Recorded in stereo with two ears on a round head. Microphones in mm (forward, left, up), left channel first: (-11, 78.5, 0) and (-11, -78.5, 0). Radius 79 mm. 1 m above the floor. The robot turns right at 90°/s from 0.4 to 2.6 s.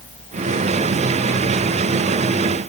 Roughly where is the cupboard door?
I don't hear a cupboard door.